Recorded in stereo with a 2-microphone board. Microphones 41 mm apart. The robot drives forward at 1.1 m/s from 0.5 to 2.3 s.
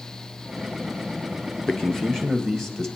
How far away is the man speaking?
About 0.5 m.